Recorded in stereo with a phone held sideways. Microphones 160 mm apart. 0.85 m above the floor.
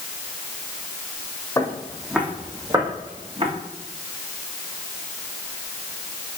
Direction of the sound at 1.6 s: 15° left (ahead or behind).